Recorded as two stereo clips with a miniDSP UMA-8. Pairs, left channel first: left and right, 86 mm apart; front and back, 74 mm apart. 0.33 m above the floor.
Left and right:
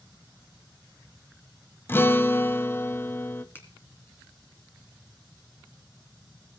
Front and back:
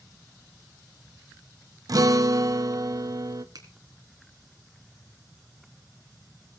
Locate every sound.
1.9 s a guitar: 150° left, 0.6 m
3.5 s a finger snap: 155° left, 2.5 m